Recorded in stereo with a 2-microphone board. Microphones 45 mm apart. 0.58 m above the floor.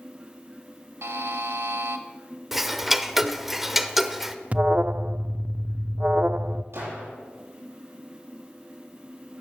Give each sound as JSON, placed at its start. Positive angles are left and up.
{"t": 1.0, "sound": "a buzzer", "side_deg": -75, "distance_m": 1.2}
{"t": 2.5, "sound": "ticking", "side_deg": -5, "distance_m": 0.8}
{"t": 4.5, "sound": "an alarm", "side_deg": -30, "distance_m": 0.5}
{"t": 6.7, "sound": "a gunshot", "side_deg": -65, "distance_m": 7.5}